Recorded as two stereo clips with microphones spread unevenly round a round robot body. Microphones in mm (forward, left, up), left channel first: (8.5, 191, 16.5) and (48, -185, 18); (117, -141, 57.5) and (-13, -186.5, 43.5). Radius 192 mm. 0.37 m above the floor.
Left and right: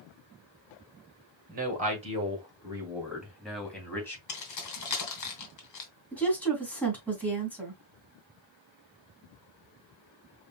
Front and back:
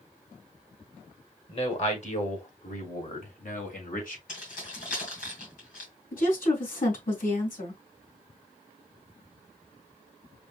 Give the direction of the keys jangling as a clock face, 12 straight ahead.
10 o'clock.